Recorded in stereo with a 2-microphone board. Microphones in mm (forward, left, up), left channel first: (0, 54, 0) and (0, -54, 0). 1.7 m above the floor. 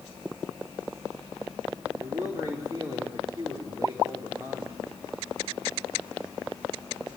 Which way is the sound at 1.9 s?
35° right (ahead or behind).